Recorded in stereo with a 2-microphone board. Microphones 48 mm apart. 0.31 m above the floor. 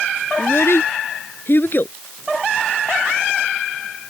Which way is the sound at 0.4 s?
65° left (ahead or behind).